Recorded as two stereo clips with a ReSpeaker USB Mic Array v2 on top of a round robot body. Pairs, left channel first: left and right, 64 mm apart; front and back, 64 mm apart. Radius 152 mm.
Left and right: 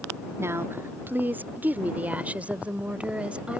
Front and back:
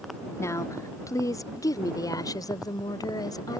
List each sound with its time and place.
0.4 s a woman speaking: 45° right; by 3.6 s 20° right